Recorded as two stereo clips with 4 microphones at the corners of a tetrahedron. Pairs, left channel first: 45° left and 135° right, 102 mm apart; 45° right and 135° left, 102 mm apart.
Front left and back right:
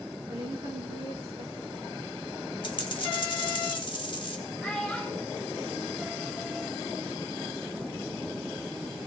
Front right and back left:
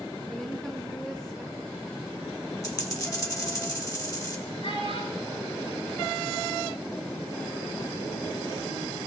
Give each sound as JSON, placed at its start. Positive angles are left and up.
{"t": 0.3, "sound": "a woman speaking", "azimuth_deg": -125, "distance_m": 3.0}
{"t": 2.6, "sound": "a dropped coin", "azimuth_deg": 10, "distance_m": 1.6}
{"t": 4.6, "sound": "a child speaking", "azimuth_deg": -35, "distance_m": 10.0}